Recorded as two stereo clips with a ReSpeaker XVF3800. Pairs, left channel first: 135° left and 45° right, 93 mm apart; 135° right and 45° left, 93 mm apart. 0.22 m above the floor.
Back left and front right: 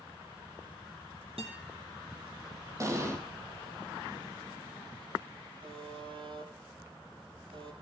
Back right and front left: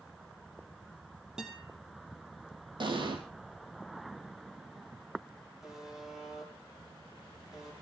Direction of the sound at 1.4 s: 40° right.